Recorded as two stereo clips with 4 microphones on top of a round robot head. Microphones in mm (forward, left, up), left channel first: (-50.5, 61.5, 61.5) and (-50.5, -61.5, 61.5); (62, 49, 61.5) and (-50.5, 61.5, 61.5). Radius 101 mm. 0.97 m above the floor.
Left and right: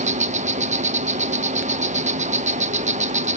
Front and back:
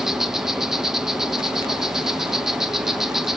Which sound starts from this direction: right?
An insect, at 0.0 s.